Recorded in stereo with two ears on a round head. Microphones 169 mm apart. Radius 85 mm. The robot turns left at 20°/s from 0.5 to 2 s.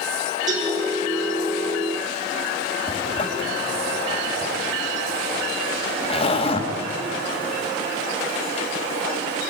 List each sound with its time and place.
0.5 s a cowbell: 25° right (ahead or behind), 8.5 m
2.9 s a zipper: 30° left (ahead or behind), 3 m